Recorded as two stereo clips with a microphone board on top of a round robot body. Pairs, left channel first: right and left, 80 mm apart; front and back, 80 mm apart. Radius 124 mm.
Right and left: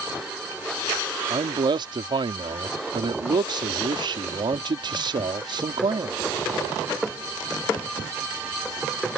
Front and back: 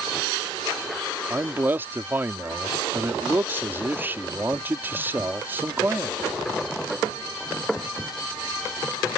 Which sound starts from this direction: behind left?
A man speaking, at 1.3 s.